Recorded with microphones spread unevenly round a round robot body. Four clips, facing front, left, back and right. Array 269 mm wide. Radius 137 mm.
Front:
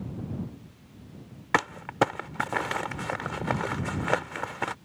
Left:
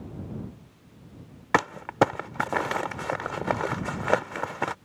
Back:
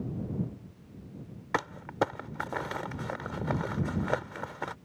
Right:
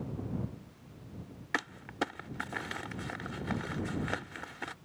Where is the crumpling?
70° left.